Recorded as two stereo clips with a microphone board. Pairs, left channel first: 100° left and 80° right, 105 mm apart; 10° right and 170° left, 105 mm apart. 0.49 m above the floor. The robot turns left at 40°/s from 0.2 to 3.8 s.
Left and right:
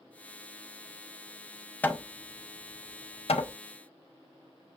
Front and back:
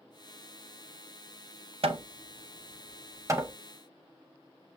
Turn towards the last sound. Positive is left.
turn(degrees=95)